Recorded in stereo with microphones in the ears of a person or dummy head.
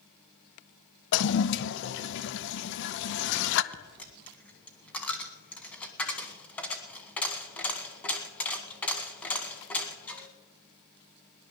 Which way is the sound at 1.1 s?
70° left (ahead or behind).